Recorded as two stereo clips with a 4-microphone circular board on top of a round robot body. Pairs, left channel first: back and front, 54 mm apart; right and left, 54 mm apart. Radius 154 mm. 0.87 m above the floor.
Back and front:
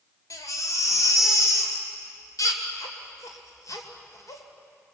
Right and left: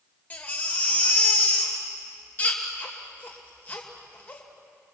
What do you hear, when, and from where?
0.3 s a baby crying: 150° right, 2.5 m